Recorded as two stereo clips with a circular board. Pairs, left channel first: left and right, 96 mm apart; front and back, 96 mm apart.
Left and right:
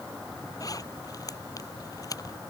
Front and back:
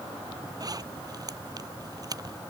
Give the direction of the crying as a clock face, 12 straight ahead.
I don't hear crying.